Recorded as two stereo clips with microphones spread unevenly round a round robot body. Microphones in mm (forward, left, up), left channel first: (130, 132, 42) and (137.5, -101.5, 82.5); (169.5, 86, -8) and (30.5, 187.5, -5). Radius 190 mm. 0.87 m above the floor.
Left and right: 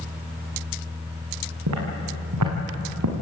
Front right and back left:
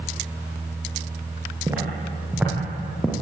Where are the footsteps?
135° right, 4.5 m; by 3.1 s 120° right, 3.5 m.